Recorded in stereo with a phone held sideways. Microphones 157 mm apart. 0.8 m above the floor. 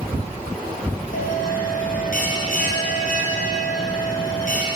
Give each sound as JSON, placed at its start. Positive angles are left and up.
{"t": 1.1, "sound": "a bell", "side_deg": 65, "distance_m": 3.0}